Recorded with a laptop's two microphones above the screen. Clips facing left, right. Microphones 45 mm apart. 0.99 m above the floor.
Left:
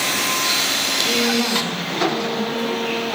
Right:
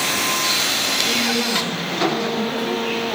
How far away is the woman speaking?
About 0.8 m.